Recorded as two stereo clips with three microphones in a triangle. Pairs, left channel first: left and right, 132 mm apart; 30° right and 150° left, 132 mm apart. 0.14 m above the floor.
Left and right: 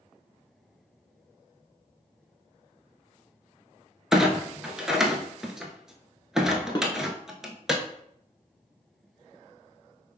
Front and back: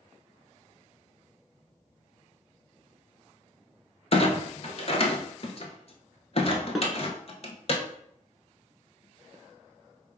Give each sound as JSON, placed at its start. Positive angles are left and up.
{"t": 4.1, "sound": "a clunk", "azimuth_deg": -5, "distance_m": 0.6}
{"t": 6.8, "sound": "dishes clattering", "azimuth_deg": 60, "distance_m": 0.9}